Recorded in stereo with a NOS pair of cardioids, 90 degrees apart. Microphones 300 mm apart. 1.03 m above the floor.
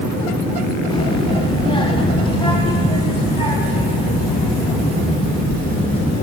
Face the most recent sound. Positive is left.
turn(degrees=15)